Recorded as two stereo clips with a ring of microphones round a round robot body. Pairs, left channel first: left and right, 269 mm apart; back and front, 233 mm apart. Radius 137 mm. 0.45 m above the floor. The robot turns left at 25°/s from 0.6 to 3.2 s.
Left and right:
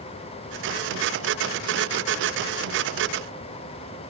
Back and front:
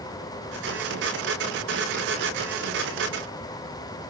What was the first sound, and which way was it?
Only background noise.